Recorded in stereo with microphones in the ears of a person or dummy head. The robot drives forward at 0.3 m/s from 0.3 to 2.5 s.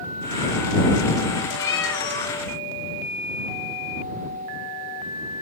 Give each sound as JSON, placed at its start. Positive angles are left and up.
{"t": 1.6, "sound": "a cat meowing", "side_deg": 20, "distance_m": 0.9}